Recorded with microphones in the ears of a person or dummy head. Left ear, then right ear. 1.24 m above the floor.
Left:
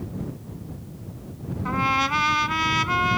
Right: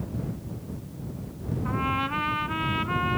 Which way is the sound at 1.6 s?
85° left.